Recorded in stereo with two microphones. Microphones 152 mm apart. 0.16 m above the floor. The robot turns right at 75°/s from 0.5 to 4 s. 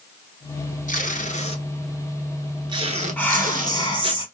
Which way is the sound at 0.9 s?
65° left (ahead or behind).